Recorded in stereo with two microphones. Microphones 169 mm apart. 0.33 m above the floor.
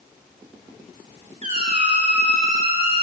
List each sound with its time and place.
1.4 s a squeak: 40° right (ahead or behind), 1.9 m